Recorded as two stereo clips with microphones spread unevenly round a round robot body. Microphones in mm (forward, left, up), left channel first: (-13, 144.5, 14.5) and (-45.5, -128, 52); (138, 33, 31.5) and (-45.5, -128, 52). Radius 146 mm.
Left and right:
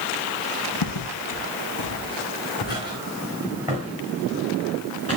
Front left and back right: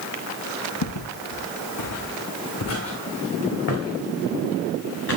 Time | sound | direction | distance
0.8 | footsteps | 65° left | 1.3 m